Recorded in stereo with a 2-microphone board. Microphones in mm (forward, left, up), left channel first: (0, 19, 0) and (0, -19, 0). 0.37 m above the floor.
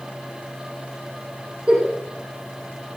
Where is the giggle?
20° right (ahead or behind), 6 m.